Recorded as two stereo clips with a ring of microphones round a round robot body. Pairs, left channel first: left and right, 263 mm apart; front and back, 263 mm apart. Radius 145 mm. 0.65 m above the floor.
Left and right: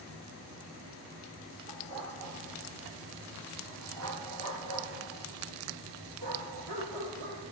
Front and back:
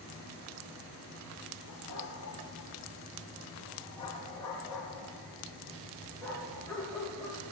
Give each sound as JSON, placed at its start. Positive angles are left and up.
{"t": 1.7, "sound": "a dog barking", "azimuth_deg": -50, "distance_m": 4.5}